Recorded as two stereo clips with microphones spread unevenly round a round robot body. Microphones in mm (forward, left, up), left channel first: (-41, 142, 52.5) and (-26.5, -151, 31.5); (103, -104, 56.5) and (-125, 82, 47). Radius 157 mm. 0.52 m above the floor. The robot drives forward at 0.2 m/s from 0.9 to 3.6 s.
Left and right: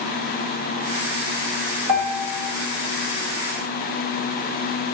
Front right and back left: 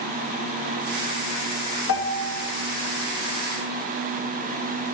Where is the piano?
80° right, 1.8 m; by 2.4 s 85° right, 1.7 m.